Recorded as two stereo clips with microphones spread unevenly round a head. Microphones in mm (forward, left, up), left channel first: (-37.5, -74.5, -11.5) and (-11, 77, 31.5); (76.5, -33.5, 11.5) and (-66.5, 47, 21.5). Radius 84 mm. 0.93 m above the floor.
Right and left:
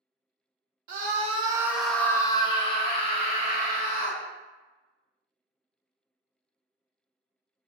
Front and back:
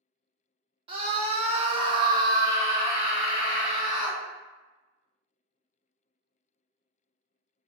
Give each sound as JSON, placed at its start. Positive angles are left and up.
{"t": 0.9, "sound": "a scream", "azimuth_deg": 100, "distance_m": 0.8}